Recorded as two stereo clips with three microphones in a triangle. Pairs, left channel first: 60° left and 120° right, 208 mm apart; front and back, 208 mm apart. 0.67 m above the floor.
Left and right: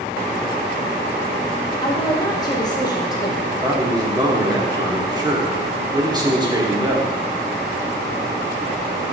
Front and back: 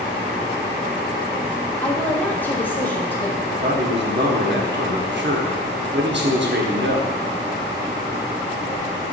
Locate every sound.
1.8 s a woman speaking: 65° left, 0.8 m
3.5 s a man speaking: 175° left, 1.0 m